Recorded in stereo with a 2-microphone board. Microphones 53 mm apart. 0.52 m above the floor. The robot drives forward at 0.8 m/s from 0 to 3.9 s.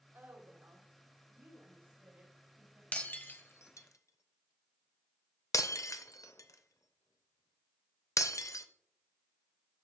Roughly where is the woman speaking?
Right.